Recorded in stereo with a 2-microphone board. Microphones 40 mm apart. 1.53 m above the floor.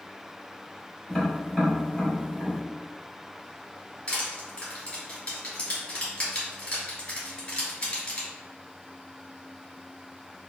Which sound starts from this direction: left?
Crushing, at 4.1 s.